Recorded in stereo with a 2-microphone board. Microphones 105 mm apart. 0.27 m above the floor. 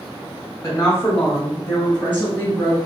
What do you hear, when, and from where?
0.6 s a woman speaking: 25° left (ahead or behind), 1.1 m; by 2.8 s 20° left (ahead or behind), 2 m